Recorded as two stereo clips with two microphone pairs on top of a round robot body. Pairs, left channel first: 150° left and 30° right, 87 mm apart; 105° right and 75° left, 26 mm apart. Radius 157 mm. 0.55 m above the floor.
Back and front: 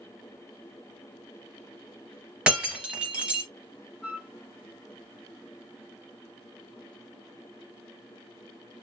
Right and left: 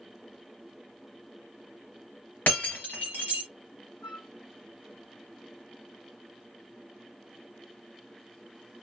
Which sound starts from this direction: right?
Breaking glass, at 2.5 s.